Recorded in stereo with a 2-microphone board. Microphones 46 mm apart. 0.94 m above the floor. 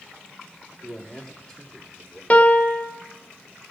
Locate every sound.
0.8 s a man speaking: 15° left (ahead or behind), 2.5 m; by 2.2 s 10° left (ahead or behind), 3 m
2.3 s a piano: 30° left (ahead or behind), 0.9 m